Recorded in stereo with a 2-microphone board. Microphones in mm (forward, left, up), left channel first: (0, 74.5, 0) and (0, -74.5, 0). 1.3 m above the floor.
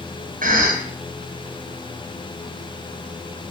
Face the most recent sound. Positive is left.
turn(degrees=-60)  # may be behind; listen again after turning